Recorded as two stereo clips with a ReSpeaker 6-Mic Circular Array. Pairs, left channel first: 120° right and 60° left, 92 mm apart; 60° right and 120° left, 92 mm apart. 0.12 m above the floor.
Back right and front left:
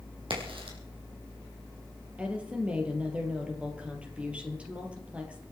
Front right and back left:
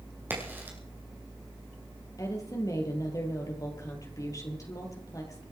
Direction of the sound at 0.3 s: 55° left.